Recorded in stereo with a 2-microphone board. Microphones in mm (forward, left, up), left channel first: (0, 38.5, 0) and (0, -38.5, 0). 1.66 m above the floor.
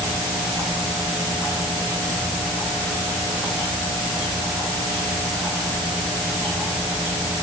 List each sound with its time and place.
Only background noise.